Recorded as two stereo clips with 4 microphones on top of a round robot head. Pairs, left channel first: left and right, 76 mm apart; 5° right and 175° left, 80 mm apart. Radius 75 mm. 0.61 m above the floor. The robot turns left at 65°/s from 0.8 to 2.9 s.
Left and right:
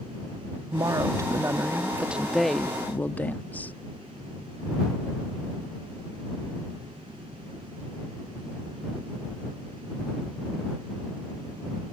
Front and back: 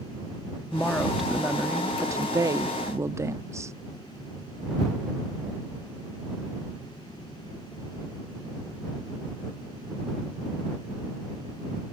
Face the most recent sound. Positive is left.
turn(degrees=150)